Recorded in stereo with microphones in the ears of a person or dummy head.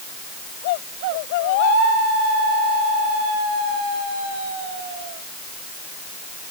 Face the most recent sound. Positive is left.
No sound to turn to.